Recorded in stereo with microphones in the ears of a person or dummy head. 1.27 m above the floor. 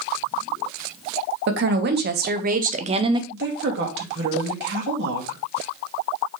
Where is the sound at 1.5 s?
60° right (ahead or behind), 1.5 m; by 3.2 s 20° right (ahead or behind), 0.7 m.